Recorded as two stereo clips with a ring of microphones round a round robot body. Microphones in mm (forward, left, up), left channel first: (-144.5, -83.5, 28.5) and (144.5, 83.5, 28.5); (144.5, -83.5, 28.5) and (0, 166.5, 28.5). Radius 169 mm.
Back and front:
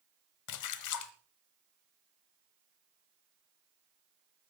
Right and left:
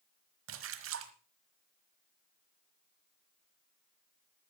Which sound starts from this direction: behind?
A splash, at 0.5 s.